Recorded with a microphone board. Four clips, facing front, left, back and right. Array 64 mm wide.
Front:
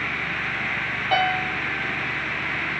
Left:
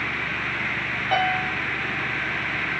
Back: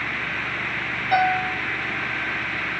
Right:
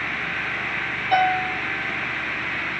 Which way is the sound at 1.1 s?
15° left.